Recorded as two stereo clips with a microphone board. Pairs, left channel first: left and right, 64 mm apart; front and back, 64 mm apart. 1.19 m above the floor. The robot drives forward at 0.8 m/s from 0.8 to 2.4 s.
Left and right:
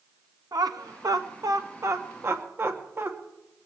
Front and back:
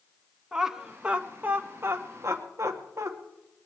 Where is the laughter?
100° right, 1.3 m; by 3.1 s 140° right, 1.9 m.